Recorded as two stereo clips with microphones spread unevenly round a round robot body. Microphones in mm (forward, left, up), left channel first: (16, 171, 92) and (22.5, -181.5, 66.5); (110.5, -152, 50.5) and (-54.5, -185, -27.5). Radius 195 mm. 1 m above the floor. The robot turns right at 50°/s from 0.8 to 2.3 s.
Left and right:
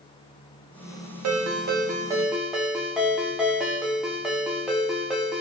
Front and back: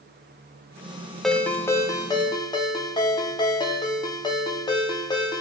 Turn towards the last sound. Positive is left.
turn(degrees=5)